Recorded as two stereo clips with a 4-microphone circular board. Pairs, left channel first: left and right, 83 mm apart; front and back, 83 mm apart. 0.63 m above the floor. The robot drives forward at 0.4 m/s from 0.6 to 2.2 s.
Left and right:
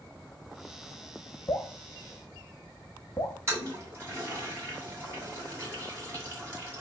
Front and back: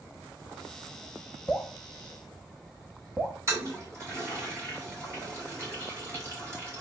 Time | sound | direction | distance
1.5 | dripping | 80° left | 0.7 m
3.5 | a toilet flushing | 140° right | 1.6 m